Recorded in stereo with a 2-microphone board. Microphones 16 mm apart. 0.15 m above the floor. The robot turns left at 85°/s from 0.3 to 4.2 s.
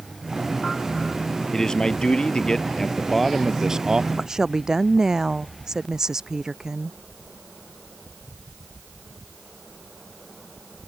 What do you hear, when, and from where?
1.5 s a man speaking: 145° left; by 4.1 s 70° right
4.2 s a woman speaking: 40° right (ahead or behind); by 7.0 s 35° right (ahead or behind)